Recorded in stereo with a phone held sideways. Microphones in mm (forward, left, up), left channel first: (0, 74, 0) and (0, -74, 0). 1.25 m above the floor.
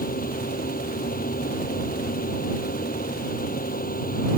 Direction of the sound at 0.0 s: 80° left.